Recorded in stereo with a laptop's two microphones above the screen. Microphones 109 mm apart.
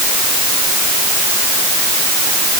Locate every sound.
Only background noise.